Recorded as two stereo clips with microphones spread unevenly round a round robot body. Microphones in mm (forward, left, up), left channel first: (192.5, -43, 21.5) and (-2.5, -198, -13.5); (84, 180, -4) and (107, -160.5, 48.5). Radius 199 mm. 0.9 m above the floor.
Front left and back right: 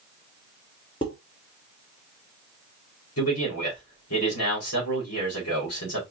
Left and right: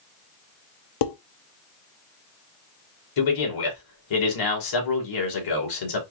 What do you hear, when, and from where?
1.0 s dishes clattering: 115° left, 0.7 m
3.2 s a man speaking: 90° left, 2.5 m